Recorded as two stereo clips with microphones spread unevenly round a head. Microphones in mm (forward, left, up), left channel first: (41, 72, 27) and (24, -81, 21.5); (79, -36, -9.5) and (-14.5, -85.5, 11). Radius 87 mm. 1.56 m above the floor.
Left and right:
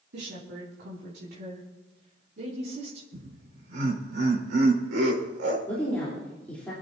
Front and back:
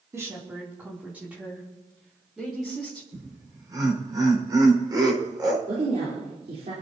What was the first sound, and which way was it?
A woman speaking, 85° right.